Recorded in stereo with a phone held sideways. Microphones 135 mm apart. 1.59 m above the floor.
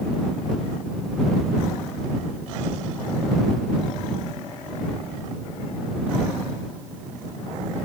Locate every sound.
Only background noise.